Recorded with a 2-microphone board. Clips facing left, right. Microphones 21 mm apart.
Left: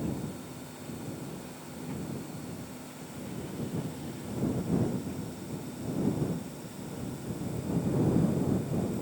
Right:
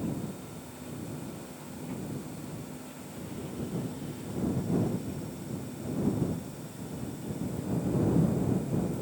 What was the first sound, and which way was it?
Only background noise.